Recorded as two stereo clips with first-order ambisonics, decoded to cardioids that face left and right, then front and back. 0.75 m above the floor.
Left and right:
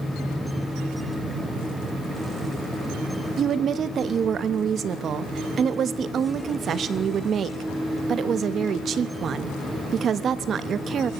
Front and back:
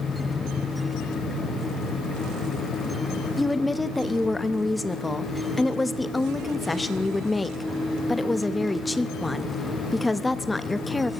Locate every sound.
3.4 s a woman speaking: 75° right, 0.6 m